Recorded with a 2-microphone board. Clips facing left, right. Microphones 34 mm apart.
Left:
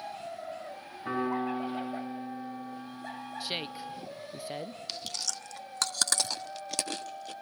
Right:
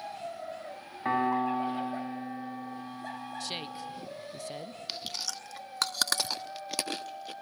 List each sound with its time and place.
1.1 s a piano: 60° right (ahead or behind), 6 m
3.4 s a woman speaking: 20° left (ahead or behind), 0.5 m
4.9 s chewing: 15° right (ahead or behind), 0.9 m